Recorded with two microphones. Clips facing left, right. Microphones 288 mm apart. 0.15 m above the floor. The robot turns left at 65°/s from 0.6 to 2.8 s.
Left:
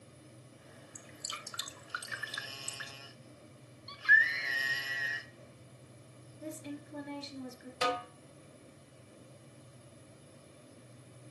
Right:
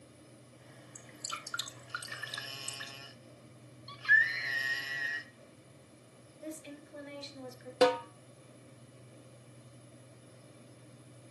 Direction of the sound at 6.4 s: 55° left (ahead or behind).